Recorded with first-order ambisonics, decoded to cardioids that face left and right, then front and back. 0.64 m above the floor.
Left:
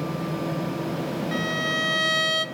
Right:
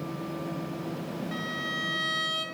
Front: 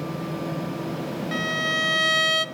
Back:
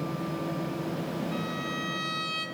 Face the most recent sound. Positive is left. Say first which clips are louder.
# left 7 dB, front 9 dB
turn(degrees=25)